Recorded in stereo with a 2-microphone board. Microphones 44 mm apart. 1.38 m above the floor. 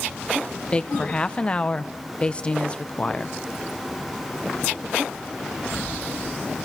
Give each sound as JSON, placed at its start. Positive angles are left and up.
{"t": 0.7, "sound": "a woman speaking", "side_deg": 25, "distance_m": 0.9}